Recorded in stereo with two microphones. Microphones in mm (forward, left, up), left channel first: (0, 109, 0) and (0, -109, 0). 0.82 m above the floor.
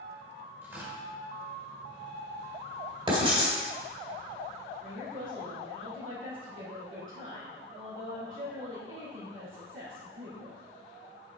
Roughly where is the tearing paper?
Centre.